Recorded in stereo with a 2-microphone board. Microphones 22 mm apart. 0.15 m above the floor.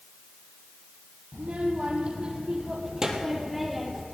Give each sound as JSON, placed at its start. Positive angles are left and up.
{"t": 1.3, "sound": "a child speaking", "side_deg": -65, "distance_m": 3.0}